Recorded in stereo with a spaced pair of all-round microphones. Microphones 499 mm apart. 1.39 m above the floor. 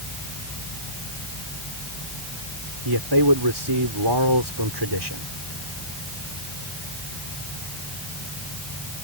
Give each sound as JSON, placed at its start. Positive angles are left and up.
{"t": 2.9, "sound": "a man speaking", "side_deg": -50}